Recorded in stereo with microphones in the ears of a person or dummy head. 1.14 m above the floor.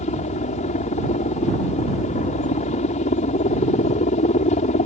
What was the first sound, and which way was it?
A helicopter, 30° left (ahead or behind).